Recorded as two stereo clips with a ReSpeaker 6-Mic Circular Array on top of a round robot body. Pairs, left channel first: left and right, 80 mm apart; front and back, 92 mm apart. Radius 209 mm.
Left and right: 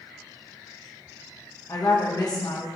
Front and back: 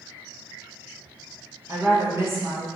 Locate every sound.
1.7 s a woman speaking: 120° left, 1.8 m